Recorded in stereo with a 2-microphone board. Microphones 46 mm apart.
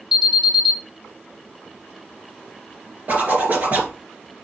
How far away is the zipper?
About 2.5 m.